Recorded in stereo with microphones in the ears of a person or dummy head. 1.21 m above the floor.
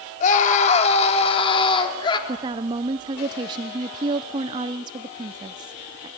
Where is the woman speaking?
25° right (ahead or behind), 0.5 m.